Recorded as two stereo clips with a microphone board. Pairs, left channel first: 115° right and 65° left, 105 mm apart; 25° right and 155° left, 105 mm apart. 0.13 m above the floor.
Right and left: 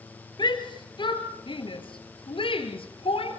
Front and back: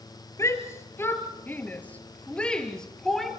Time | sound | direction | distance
0.4 | a shout | 80° right | 3 m